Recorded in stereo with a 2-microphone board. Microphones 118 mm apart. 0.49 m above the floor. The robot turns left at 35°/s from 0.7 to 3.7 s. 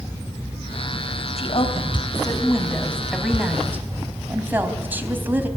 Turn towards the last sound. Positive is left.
turn(degrees=-15)